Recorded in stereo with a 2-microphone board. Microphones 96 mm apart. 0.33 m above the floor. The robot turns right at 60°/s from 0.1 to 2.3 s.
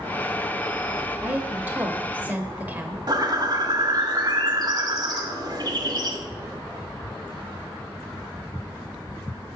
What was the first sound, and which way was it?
A woman speaking, 15° right (ahead or behind).